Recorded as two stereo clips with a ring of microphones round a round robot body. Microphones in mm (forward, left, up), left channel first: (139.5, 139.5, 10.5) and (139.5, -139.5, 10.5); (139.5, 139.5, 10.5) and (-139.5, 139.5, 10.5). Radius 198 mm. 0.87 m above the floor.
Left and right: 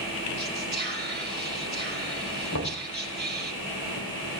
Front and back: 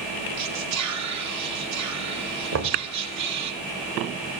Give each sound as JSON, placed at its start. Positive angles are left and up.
{"t": 0.4, "sound": "whispering", "azimuth_deg": 165, "distance_m": 2.5}
{"t": 2.5, "sound": "knocking", "azimuth_deg": 145, "distance_m": 2.0}